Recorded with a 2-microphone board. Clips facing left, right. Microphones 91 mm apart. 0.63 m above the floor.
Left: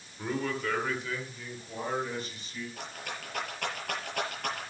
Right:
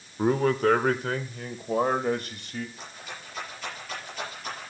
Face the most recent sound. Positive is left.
turn(degrees=75)  # may be behind; listen again after turning